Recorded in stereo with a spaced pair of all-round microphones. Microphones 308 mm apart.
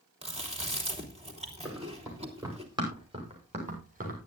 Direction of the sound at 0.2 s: 20° right (ahead or behind).